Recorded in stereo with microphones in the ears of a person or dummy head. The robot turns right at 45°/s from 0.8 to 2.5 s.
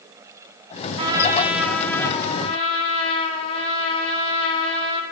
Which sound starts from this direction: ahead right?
A trumpet, at 1.0 s.